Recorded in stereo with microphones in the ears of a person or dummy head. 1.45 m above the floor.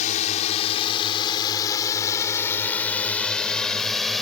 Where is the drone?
40° left (ahead or behind); by 4.2 s centre (ahead or behind).